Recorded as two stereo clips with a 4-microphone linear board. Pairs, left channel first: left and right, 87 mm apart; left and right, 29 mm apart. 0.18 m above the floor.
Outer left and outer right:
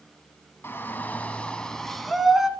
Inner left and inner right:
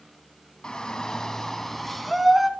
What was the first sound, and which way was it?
A shout, 25° left (ahead or behind).